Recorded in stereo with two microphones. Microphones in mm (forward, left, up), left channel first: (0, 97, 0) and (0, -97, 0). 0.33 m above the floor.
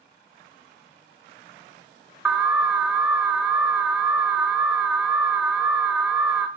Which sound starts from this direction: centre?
An alarm, at 2.2 s.